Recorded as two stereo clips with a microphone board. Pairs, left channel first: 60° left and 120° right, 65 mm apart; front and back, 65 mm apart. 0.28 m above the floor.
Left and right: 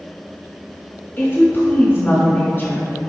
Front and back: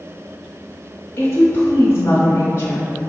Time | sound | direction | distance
1.2 | a woman speaking | 30° left | 1.2 m